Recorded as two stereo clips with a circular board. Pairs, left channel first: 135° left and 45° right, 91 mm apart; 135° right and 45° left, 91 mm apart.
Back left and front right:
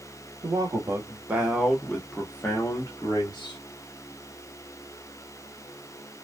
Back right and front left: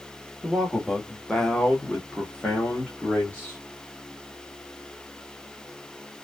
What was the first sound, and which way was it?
A man speaking, 45° right.